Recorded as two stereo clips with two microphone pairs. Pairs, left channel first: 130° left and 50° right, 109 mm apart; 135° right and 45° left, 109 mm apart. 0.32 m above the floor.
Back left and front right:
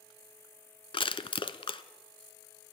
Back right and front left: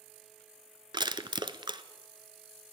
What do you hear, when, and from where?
0.9 s crushing: 90° left, 0.9 m